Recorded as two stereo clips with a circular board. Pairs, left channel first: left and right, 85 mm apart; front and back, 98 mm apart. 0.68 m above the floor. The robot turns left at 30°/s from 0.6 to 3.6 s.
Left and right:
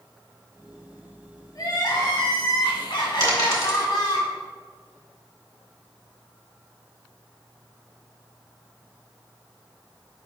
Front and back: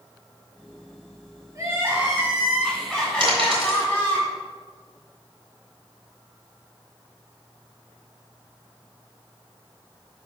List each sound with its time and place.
1.6 s crying: 120° left, 2 m; by 4.2 s 60° left, 2 m
3.2 s a dropped coin: 140° right, 3 m; by 3.8 s 150° right, 3 m